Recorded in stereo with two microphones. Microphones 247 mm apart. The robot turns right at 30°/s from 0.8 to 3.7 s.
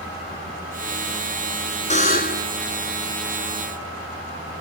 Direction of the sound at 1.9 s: 30° left (ahead or behind).